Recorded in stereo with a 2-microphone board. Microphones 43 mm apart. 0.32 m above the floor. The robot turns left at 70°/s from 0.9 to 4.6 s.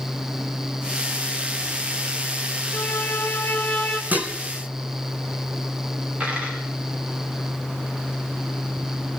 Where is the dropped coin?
30° right (ahead or behind), 8 m.